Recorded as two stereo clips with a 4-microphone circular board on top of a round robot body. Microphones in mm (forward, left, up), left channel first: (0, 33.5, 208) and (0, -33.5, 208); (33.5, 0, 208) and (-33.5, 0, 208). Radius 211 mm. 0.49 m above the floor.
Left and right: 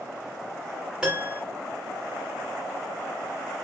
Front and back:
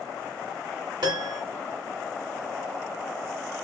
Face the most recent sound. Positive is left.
turn(degrees=-170)